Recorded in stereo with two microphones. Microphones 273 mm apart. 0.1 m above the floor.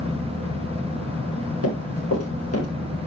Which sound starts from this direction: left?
Running footsteps, at 1.6 s.